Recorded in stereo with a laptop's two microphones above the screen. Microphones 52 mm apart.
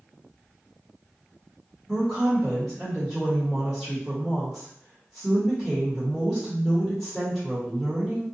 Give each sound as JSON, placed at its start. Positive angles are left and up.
{"t": 1.9, "sound": "a woman speaking", "side_deg": -10, "distance_m": 1.1}